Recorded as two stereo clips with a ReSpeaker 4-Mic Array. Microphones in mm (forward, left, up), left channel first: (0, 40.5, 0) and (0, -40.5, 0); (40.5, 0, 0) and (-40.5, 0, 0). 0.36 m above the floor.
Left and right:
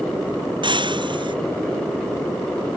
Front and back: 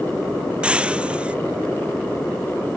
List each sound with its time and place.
0.6 s breaking glass: 105° right